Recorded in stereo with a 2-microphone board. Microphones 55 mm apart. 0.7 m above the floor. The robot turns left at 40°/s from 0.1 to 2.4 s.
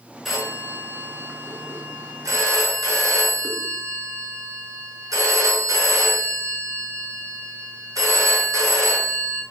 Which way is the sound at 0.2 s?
Straight ahead.